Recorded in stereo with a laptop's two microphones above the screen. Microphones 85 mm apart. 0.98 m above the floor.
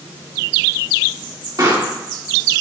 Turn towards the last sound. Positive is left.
turn(degrees=-55)  # may be behind; listen again after turning